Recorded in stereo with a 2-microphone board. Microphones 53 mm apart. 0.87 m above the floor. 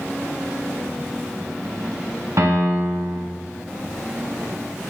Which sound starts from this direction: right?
A piano, at 2.4 s.